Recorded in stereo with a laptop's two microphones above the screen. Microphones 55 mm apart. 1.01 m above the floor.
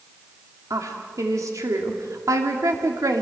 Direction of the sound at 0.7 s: 80° right.